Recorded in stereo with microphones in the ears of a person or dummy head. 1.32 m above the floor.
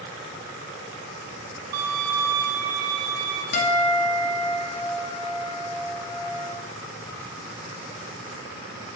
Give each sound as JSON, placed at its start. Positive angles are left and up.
{"t": 1.7, "sound": "a violin", "side_deg": -20, "distance_m": 0.7}
{"t": 3.5, "sound": "a guitar", "side_deg": 60, "distance_m": 0.7}